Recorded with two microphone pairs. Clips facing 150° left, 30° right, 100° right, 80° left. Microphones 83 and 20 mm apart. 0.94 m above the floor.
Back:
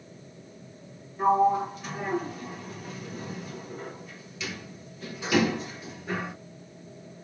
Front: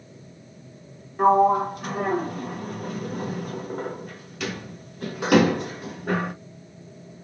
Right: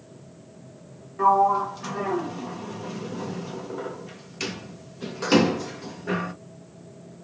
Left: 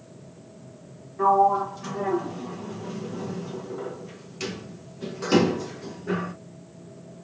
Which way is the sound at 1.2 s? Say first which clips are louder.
Front 5 dB, even; 35° right.